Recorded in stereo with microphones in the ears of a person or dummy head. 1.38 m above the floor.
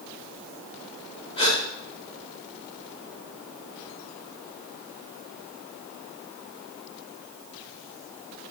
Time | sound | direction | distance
1.4 | a gasp | 30° left (ahead or behind) | 5 m